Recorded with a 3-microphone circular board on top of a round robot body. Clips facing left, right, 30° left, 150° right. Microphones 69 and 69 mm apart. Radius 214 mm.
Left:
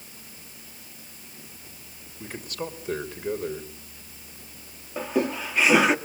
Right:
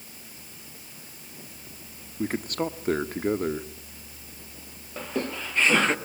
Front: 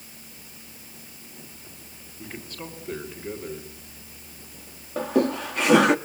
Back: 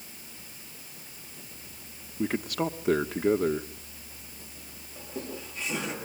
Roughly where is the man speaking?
Behind right.